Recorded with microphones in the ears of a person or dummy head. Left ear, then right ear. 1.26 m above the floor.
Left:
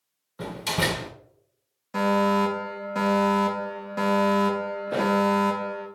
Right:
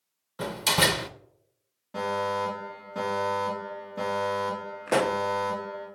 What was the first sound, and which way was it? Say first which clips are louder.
A door slam: right 3 dB; 20° right (ahead or behind).